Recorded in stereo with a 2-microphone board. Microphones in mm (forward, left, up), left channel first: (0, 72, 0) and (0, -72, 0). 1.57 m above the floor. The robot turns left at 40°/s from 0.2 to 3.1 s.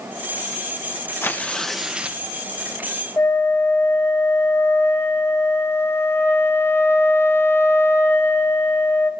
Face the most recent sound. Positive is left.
turn(degrees=15)  # may be behind; listen again after turning